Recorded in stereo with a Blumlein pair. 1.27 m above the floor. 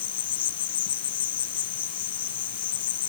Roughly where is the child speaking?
No child speaking in this recording.